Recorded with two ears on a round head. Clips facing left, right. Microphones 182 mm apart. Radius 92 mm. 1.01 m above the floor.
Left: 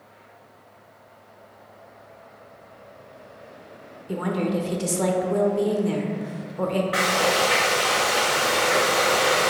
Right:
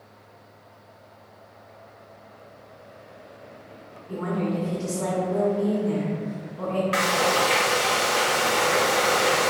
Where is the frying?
60° right (ahead or behind), 1.2 m.